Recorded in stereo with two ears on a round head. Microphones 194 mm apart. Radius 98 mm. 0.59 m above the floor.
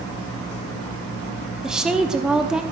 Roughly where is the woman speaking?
Centre.